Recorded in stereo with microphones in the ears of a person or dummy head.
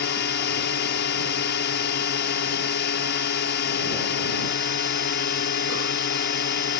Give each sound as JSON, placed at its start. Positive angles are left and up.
{"t": 0.0, "sound": "a drone", "side_deg": 55}